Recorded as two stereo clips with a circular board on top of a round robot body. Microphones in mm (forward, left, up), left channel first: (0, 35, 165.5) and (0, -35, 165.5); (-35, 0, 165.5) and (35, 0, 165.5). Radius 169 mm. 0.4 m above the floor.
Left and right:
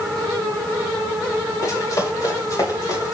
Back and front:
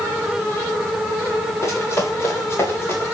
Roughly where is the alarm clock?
No alarm clock in this recording.